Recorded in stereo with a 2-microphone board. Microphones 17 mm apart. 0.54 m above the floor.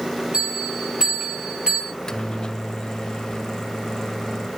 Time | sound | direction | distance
0.3 | a bell | 70° right (ahead or behind) | 3.5 m
1.9 | a microwave | 45° left (ahead or behind) | 0.6 m